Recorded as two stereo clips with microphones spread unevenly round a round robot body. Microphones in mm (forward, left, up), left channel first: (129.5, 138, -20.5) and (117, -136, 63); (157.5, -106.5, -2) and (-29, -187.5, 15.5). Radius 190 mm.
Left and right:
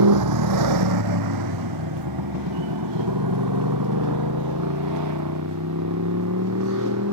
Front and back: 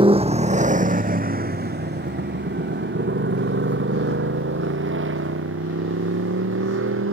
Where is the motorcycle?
90° right; by 7.1 s 145° right.